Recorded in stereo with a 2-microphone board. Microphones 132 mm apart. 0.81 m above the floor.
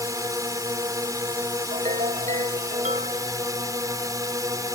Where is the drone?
25° right (ahead or behind).